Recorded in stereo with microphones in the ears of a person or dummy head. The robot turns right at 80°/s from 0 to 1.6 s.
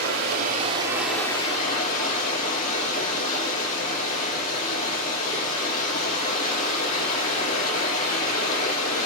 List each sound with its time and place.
0.0 s running water: 85° right, 3 m; by 9.1 s 45° left, 3 m